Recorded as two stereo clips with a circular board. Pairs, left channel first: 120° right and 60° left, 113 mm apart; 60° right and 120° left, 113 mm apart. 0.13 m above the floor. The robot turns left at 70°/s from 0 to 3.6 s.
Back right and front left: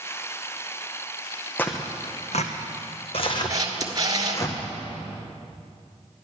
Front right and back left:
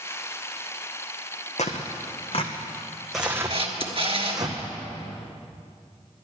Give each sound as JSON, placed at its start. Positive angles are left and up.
{"t": 1.6, "sound": "tearing paper", "azimuth_deg": -45, "distance_m": 1.4}
{"t": 3.5, "sound": "a camera shutter", "azimuth_deg": 115, "distance_m": 1.4}